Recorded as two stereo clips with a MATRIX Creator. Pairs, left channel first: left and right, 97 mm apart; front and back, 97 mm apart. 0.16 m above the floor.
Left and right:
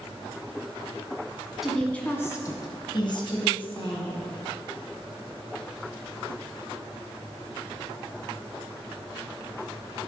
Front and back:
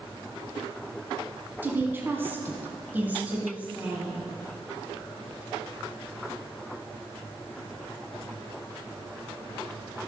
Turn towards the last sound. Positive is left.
turn(degrees=105)